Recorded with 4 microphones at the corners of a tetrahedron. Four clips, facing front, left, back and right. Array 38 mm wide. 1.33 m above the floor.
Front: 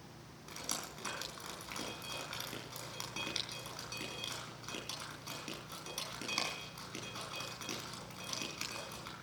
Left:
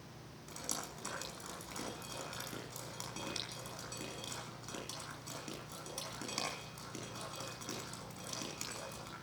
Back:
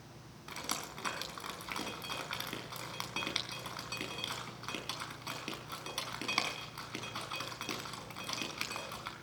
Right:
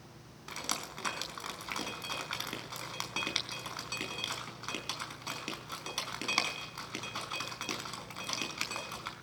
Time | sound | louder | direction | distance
0.5 | dripping | right 6 dB, back 3 dB | 115° right | 5 m